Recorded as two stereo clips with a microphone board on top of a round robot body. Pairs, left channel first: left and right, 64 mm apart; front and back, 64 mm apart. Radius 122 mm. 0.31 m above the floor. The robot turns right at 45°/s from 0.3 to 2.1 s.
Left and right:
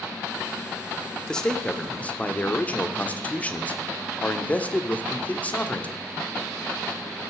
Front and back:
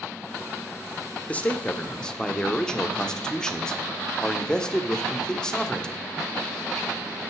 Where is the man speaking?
25° left, 1.3 m; by 6.0 s 60° left, 1.3 m.